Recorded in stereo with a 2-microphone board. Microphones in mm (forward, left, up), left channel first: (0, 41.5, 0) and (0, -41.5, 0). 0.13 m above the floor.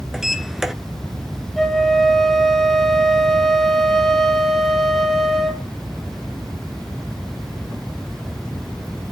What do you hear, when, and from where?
0.1 s a sliding door: 5° right (ahead or behind), 0.7 m
1.6 s a flute: 5° left (ahead or behind), 2.5 m